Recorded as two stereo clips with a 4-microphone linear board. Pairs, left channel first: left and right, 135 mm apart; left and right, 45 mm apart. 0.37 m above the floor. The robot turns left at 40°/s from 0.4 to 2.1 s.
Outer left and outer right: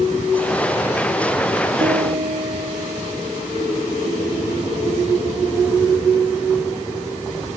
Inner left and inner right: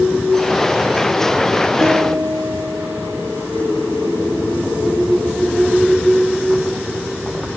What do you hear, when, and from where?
1.8 s a piano: 85° right, 2 m; by 3.5 s 75° right (ahead or behind), 2 m